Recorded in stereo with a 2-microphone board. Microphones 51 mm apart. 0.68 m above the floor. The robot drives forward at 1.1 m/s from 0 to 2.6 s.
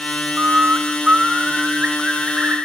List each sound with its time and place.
0.4 s a bird: 50° right (ahead or behind), 0.7 m; by 2.6 s 10° right (ahead or behind), 3 m